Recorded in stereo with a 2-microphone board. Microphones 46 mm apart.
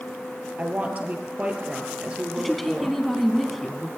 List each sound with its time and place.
0.6 s a woman speaking: 35° right (ahead or behind), 3 m; by 3.0 s 15° right (ahead or behind), 3 m
2.4 s a woman speaking: centre (ahead or behind), 1.6 m